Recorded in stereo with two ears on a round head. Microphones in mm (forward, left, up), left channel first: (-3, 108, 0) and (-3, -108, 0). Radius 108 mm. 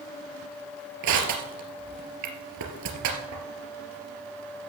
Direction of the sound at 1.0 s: 80° right.